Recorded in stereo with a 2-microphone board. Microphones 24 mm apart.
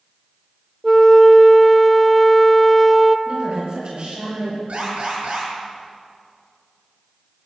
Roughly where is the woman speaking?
Right.